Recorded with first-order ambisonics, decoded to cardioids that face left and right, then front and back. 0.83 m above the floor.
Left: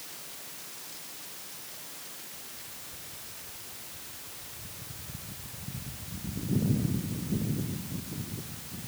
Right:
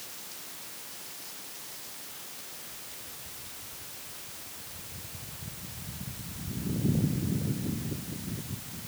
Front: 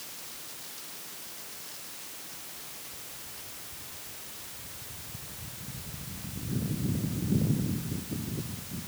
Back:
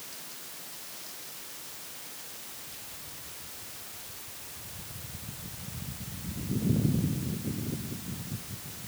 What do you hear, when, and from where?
Only background noise.